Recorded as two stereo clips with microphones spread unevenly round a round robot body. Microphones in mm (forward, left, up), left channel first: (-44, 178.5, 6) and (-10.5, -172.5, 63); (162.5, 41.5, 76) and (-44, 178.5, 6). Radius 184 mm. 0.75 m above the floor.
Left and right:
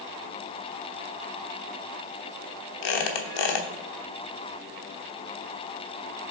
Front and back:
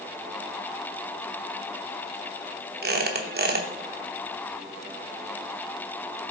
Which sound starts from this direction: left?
A squeak, at 2.8 s.